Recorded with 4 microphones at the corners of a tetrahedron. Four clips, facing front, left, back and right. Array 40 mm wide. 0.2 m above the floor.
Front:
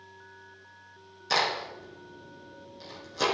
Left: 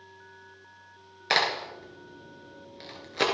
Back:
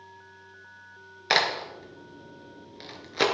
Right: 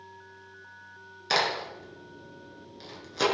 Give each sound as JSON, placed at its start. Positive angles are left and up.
{"t": 1.3, "sound": "a crack", "azimuth_deg": 155, "distance_m": 3.0}